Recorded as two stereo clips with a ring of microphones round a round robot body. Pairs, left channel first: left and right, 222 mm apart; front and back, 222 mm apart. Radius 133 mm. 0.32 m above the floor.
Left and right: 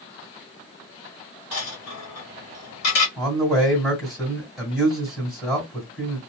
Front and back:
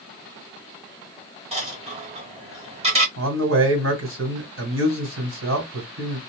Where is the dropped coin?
115° left, 1.5 m.